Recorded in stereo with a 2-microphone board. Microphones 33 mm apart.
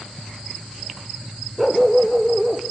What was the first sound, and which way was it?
A dog barking, 5° right (ahead or behind).